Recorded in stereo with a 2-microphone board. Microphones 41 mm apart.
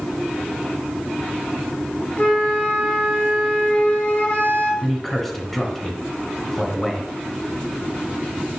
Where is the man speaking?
5° left (ahead or behind), 1.3 m.